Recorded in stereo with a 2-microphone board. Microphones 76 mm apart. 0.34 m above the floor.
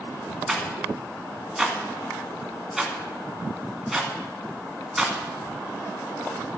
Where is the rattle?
5° right (ahead or behind), 2 m.